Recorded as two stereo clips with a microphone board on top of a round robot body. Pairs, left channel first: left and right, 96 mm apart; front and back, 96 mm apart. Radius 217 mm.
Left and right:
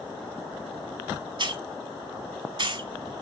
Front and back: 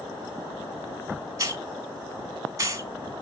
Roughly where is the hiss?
Behind right.